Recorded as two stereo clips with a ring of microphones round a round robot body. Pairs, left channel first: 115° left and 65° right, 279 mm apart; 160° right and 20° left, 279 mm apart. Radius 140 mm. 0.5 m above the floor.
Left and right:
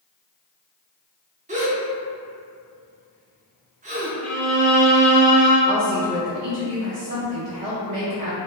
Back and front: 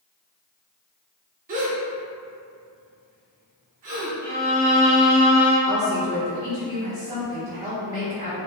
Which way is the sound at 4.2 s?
50° left.